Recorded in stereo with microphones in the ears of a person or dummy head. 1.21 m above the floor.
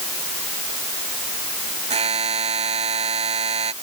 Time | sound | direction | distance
1.9 | a buzzer | 30° right (ahead or behind) | ?